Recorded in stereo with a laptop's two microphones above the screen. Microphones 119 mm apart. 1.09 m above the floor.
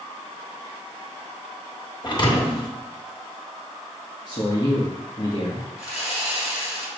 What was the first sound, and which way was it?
A thud, 35° left (ahead or behind).